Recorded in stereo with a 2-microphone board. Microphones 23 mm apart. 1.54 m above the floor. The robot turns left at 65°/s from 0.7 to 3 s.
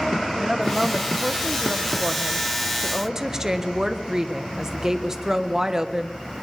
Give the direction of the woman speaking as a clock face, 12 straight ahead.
12 o'clock.